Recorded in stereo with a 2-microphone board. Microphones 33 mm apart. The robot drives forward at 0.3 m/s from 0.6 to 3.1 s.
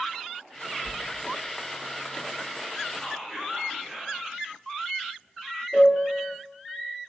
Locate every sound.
0.8 s a sliding door: 25° left (ahead or behind), 1.8 m
3.0 s whispering: 15° right (ahead or behind), 1.9 m
5.7 s a piano: 10° left (ahead or behind), 1.7 m